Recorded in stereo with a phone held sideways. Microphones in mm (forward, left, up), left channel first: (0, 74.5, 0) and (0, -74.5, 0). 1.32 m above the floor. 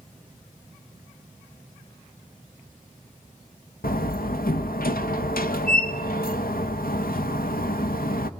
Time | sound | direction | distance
3.8 | a door slam | 85° left | 1.2 m